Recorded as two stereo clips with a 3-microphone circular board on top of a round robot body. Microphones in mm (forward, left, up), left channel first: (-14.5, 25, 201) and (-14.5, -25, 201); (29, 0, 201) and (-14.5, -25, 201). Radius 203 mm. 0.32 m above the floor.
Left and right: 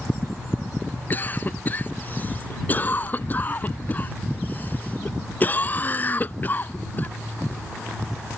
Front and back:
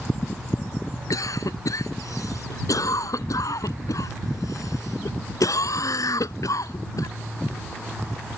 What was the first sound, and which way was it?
A cough, 30° left.